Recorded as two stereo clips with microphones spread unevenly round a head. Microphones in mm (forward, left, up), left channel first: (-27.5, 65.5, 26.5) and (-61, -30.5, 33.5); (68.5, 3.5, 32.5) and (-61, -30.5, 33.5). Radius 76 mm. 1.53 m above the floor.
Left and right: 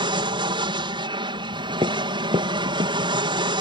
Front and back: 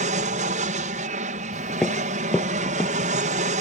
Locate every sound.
0.0 s an aircraft: 145° right
1.5 s footsteps: 80° right; by 3.1 s 70° right